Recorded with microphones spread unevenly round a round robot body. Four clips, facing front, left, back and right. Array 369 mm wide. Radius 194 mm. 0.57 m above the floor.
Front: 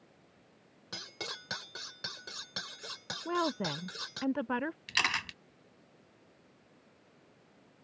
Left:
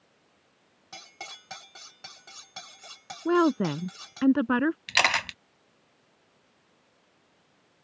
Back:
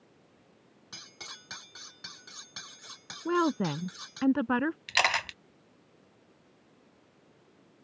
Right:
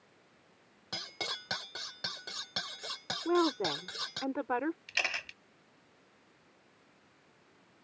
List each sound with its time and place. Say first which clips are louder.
0.9 s cutlery clinking: right 3 dB, front 6 dB; 20° right
3.2 s a woman speaking: left 6 dB, back 5 dB; 130° left
4.9 s a camera shutter: left 13 dB, back 6 dB; 70° left